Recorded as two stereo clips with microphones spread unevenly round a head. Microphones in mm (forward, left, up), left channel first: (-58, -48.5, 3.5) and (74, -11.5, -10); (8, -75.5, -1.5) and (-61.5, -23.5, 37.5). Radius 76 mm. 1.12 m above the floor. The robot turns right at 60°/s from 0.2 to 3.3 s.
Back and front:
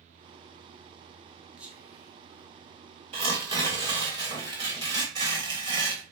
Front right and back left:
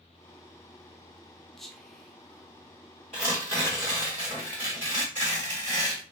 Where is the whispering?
45° right, 0.5 m; by 2.5 s 10° left, 0.5 m.